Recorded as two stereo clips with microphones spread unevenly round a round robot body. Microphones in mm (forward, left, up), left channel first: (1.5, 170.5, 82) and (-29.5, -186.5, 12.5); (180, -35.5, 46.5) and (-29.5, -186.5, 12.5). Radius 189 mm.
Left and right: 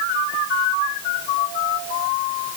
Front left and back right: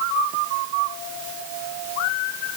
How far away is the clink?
I don't hear a clink.